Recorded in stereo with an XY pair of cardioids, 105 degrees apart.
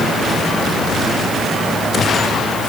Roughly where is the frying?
I don't hear frying.